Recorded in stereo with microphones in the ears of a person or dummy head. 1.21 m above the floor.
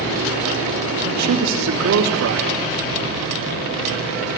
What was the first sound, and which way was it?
A man speaking, 75° right (ahead or behind).